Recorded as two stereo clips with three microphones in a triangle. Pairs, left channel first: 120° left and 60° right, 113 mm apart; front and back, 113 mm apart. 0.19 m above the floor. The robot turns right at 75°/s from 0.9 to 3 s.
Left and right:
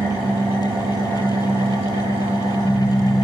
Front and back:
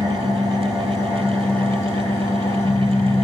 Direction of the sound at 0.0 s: 125° right.